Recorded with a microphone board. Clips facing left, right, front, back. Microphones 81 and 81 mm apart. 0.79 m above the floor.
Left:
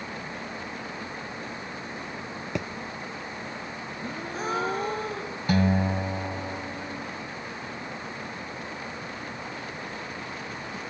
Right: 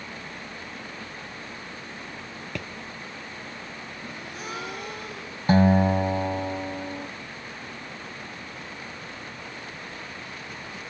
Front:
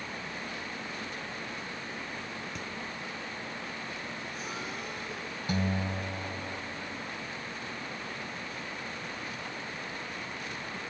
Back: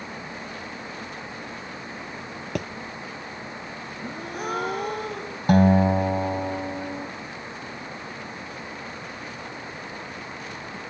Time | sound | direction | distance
2.5 | a thud | 160° left | ?
4.0 | a gasp | 145° left | ?
5.5 | a guitar | 150° right | ?